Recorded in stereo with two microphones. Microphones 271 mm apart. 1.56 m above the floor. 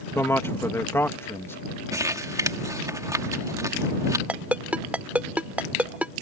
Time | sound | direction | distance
0.1 | a man speaking | 10° left (ahead or behind) | ?
1.9 | crumpling | 10° right (ahead or behind) | ?
4.3 | a ringtone | 5° right (ahead or behind) | ?